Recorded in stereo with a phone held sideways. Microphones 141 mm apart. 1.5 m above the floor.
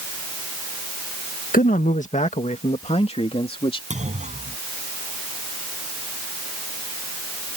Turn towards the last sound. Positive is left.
turn(degrees=-55)  # may be behind; listen again after turning